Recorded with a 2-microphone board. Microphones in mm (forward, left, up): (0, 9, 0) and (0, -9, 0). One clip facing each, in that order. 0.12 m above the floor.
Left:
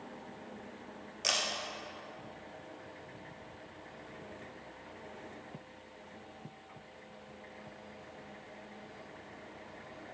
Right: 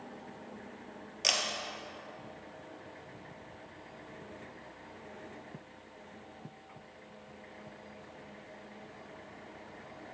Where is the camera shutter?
25° right (ahead or behind), 1.8 m.